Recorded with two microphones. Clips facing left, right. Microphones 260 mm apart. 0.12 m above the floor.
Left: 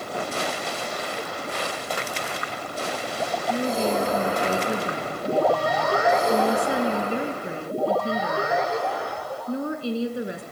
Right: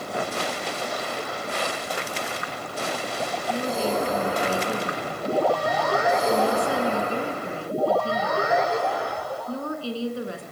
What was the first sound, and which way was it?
A woman speaking, 20° left (ahead or behind).